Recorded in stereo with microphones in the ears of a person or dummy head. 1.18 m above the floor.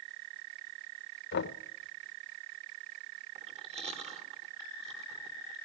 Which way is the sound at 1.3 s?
60° left (ahead or behind).